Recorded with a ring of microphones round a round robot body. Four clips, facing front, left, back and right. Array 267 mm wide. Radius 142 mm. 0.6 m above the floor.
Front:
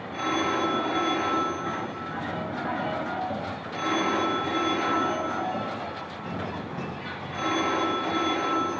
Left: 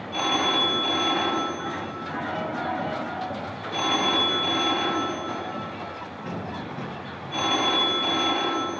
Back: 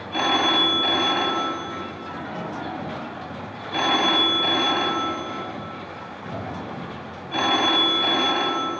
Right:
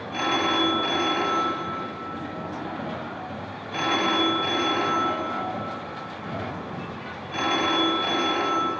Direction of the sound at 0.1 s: 170° left.